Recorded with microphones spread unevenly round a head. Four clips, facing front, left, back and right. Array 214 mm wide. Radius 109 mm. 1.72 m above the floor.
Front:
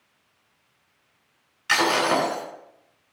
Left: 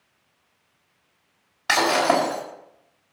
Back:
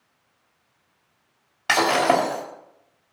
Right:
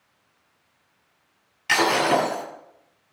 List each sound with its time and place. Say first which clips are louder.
1.7 s breaking glass: left 1 dB, back 3 dB; 150° left, 5 m